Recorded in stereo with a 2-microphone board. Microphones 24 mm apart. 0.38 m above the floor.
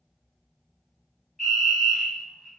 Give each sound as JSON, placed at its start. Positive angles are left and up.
{"t": 1.4, "sound": "a fire alarm", "side_deg": 5, "distance_m": 1.9}